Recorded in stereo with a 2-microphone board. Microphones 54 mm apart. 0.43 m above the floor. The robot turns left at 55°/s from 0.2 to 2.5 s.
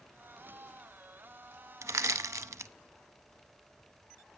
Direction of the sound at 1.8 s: 65° right (ahead or behind).